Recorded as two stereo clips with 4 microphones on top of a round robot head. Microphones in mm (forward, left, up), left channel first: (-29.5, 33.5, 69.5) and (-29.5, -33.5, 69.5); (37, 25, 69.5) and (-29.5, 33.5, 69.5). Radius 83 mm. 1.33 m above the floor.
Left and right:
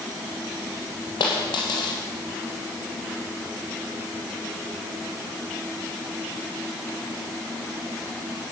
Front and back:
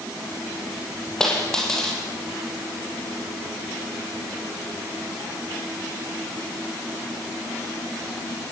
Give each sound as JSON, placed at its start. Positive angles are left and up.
{"t": 1.2, "sound": "a dropped coin", "azimuth_deg": 75, "distance_m": 5.5}